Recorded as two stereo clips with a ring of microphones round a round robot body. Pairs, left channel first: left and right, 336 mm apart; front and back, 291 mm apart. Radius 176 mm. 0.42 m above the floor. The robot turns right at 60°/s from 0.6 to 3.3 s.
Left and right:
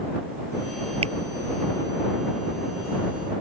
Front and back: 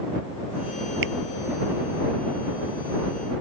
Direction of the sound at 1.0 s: 165° right.